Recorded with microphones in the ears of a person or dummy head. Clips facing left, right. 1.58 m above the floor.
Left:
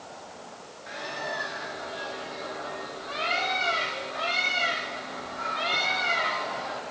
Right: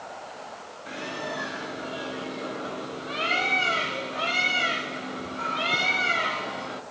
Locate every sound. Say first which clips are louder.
0.9 s a bird: right 2 dB; 45° right (ahead or behind), 1.6 m